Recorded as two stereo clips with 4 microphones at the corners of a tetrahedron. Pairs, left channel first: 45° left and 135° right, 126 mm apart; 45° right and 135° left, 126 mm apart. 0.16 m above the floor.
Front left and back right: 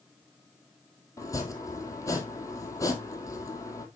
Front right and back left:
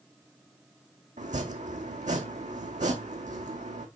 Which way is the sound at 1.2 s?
110° left.